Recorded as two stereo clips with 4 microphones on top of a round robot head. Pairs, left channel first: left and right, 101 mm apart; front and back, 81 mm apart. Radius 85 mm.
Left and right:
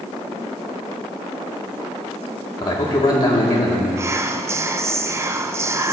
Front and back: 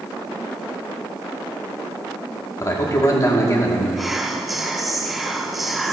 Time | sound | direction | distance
2.6 | a man speaking | 45° left | 1.9 m
4.0 | whispering | 100° right | 0.5 m